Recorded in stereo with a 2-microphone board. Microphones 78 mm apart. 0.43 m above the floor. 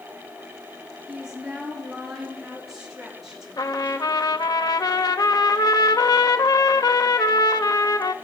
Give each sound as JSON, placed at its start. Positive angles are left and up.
{"t": 1.1, "sound": "a woman speaking", "side_deg": -5, "distance_m": 5.0}
{"t": 3.6, "sound": "a trumpet", "side_deg": 55, "distance_m": 0.7}